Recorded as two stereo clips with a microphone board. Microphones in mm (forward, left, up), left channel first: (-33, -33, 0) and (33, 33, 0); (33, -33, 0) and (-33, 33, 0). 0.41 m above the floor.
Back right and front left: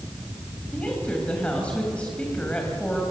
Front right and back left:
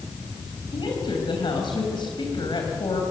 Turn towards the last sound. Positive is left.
turn(degrees=-60)